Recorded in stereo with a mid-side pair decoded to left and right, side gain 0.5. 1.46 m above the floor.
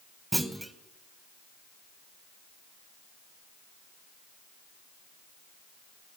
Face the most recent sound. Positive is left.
turn(degrees=-10)